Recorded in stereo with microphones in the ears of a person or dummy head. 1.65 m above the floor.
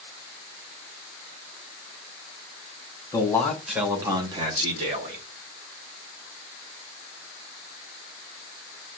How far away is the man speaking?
About 1.3 m.